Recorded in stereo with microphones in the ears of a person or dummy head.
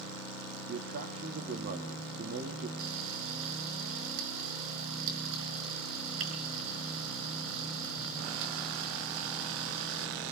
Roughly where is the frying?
Right.